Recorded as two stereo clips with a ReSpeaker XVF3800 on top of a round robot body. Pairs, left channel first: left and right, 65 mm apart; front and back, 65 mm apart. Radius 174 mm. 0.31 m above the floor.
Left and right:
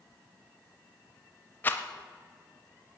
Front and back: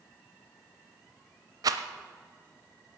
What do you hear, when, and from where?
1.6 s a rattle: 150° left, 0.7 m